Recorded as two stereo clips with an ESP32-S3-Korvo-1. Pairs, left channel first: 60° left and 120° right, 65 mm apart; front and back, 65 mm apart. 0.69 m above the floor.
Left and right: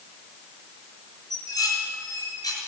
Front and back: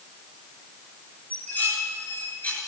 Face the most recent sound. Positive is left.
turn(degrees=65)